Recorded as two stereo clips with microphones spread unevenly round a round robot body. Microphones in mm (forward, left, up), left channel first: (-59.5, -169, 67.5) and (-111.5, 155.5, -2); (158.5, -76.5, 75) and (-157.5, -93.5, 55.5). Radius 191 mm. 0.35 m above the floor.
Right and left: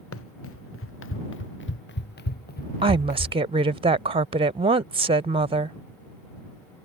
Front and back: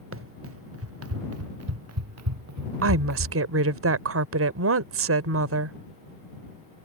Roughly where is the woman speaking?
Behind left.